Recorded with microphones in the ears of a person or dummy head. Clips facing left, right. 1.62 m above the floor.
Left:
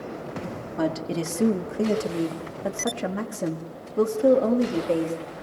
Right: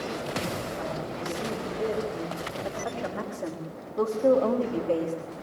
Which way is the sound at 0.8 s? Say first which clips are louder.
Left 7 dB; 75° left (ahead or behind).